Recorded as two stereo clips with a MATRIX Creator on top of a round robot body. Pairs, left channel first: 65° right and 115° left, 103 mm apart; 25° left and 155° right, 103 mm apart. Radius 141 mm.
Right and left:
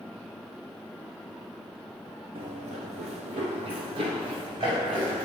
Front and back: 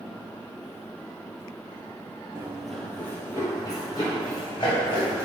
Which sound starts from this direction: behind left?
Running footsteps, at 2.4 s.